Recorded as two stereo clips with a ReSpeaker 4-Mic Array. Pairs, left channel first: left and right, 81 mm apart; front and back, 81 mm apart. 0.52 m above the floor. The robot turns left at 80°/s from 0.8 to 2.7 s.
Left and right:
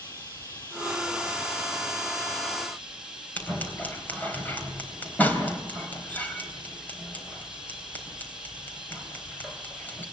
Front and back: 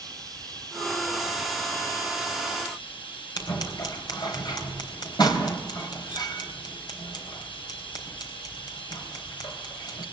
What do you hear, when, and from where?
0.0 s running water: 145° left, 5.5 m; by 10.1 s 10° right, 5.5 m
3.4 s scissors: 25° left, 3.5 m